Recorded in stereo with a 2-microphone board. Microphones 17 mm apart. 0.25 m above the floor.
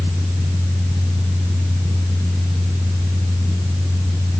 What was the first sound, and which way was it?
Only background noise.